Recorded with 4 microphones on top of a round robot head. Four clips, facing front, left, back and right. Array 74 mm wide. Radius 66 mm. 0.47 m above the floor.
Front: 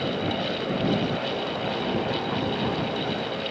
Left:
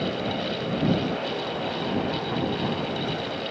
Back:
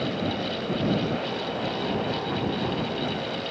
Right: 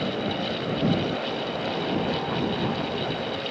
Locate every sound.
Only background noise.